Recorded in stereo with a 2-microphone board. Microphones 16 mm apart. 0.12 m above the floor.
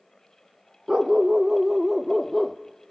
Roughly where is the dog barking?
Right.